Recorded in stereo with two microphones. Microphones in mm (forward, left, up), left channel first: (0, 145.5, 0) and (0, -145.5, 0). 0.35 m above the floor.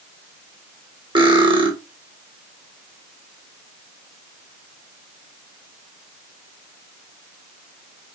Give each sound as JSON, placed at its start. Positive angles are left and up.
{"t": 1.1, "sound": "cutlery clinking", "side_deg": -15, "distance_m": 0.9}